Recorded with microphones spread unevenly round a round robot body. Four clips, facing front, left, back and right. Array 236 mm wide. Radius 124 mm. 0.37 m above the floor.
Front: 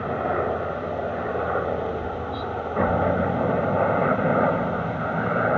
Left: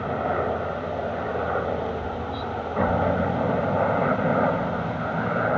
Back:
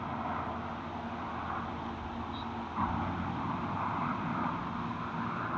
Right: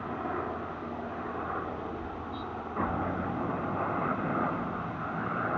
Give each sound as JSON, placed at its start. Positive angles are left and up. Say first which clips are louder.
{"t": 0.0, "sound": "a helicopter", "louder": "left 9 dB, front 12 dB", "azimuth_deg": 40}